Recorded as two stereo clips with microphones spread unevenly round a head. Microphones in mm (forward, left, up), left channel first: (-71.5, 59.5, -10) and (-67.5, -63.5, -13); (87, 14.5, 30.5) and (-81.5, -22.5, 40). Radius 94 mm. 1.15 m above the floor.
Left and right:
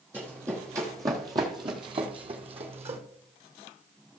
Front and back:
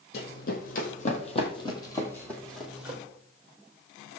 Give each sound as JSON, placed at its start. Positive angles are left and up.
{"t": 0.1, "sound": "running footsteps", "azimuth_deg": -10, "distance_m": 1.9}